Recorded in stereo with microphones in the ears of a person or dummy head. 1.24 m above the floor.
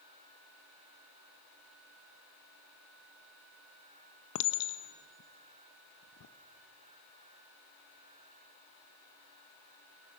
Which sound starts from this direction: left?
A clink, at 4.3 s.